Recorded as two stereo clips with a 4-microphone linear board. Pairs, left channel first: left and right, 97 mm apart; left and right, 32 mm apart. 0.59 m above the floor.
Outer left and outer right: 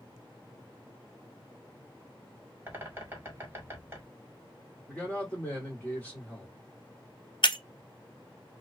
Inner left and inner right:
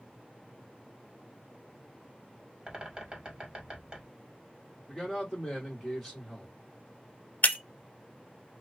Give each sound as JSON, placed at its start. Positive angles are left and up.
{"t": 2.7, "sound": "a bird", "side_deg": -20, "distance_m": 1.6}
{"t": 4.9, "sound": "a man speaking", "side_deg": 15, "distance_m": 1.9}
{"t": 7.4, "sound": "breaking glass", "side_deg": 55, "distance_m": 0.6}